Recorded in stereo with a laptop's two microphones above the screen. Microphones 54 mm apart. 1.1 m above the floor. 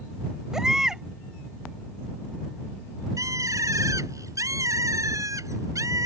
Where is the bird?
85° right.